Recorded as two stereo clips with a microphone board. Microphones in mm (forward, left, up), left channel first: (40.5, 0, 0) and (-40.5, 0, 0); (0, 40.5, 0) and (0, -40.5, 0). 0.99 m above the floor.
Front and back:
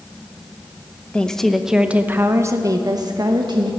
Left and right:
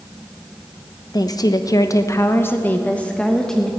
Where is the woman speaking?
75° left, 0.9 m; by 3.7 s 175° left, 1.3 m.